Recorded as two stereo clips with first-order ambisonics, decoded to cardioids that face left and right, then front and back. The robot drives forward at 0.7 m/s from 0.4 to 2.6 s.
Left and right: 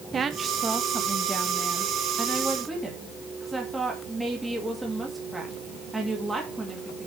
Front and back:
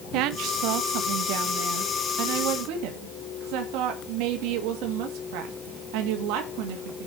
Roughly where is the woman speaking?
Behind.